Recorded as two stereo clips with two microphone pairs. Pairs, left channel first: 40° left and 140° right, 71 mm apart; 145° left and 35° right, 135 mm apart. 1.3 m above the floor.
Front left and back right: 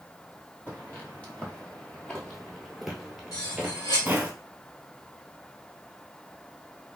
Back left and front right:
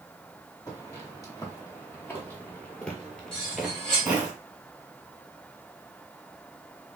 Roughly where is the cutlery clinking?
Ahead left.